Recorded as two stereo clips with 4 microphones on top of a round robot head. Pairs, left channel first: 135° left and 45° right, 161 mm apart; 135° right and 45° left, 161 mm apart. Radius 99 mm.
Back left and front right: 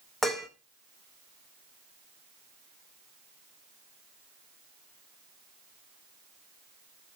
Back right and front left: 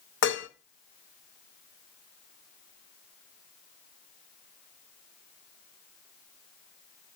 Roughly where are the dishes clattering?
Behind right.